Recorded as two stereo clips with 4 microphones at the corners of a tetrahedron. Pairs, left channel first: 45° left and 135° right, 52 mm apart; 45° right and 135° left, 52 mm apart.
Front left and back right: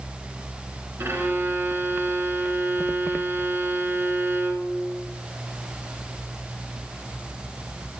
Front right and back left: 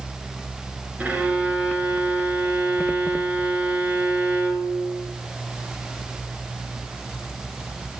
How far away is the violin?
About 2.5 m.